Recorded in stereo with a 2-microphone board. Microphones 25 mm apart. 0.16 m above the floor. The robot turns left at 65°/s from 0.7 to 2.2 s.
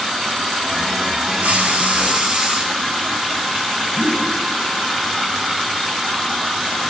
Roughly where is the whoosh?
Right.